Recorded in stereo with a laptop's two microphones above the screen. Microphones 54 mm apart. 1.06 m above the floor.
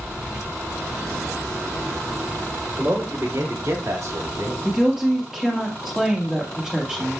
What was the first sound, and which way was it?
A man speaking, 45° right (ahead or behind).